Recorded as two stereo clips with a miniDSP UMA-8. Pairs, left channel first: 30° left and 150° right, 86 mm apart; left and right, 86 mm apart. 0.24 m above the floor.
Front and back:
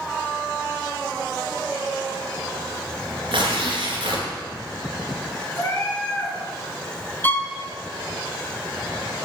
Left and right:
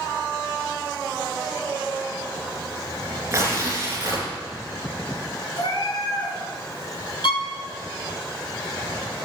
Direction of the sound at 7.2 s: 95° left.